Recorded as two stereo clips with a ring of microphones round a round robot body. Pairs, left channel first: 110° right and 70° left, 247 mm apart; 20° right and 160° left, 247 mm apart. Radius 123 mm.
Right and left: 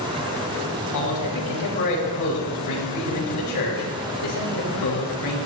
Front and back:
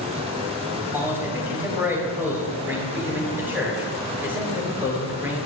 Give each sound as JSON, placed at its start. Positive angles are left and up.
{"t": 0.9, "sound": "a man speaking", "azimuth_deg": -120, "distance_m": 7.5}